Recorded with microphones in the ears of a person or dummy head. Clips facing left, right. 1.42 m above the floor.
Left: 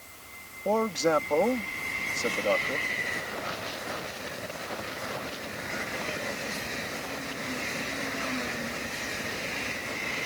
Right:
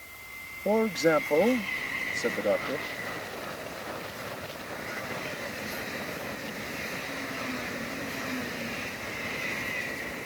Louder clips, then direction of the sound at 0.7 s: Right 2 dB; 15° right (ahead or behind).